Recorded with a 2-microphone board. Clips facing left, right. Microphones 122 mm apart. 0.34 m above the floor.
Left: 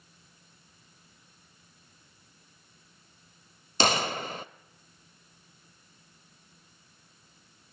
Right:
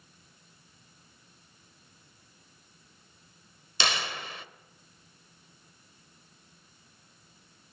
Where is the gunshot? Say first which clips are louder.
Left 6 dB; 40° left (ahead or behind), 0.8 m.